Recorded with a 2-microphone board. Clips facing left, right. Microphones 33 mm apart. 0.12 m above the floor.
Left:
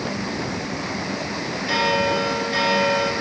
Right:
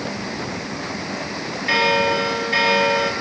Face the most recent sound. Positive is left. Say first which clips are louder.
# right 3 dB
turn(degrees=-50)  # may be behind; listen again after turning